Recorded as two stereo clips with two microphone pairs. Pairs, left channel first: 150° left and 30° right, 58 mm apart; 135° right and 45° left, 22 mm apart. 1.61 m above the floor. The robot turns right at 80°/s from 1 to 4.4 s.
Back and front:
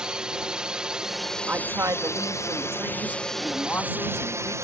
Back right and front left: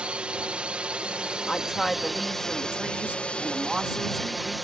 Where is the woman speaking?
90° right; by 4.5 s 140° left.